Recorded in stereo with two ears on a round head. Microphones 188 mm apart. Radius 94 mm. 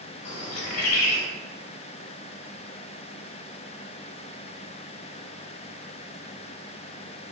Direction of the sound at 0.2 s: 80° left.